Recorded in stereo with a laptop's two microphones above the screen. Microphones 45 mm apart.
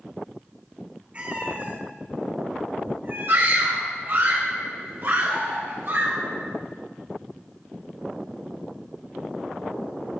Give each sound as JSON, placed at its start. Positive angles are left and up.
{"t": 1.1, "sound": "a cat meowing", "side_deg": -30, "distance_m": 1.1}
{"t": 3.3, "sound": "a scream", "side_deg": -55, "distance_m": 2.5}